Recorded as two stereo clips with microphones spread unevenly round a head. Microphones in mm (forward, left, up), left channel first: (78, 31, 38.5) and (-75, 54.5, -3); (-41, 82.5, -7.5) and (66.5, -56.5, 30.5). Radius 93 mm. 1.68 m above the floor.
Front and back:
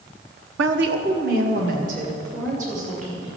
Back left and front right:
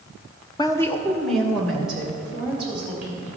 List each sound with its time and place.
0.6 s a woman speaking: 160° right, 0.7 m; by 3.3 s 135° right, 4 m